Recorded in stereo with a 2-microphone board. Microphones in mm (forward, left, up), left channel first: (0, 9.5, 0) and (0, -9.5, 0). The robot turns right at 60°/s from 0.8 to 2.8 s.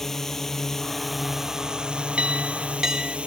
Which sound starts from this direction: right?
A clink, at 2.2 s.